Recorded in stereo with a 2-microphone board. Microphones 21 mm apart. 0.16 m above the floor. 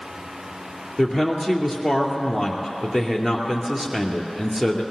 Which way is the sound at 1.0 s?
20° right (ahead or behind).